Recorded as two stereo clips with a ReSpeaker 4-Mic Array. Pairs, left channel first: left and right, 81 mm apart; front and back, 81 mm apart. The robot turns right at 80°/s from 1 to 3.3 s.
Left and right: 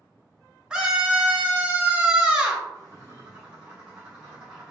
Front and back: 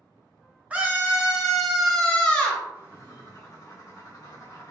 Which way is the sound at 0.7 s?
150° right.